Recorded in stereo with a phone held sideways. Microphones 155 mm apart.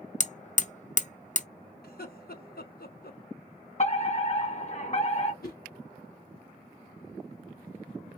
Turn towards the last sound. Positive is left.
turn(degrees=85)